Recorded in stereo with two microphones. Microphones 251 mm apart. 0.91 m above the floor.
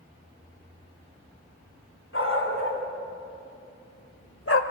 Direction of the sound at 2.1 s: 55° left (ahead or behind).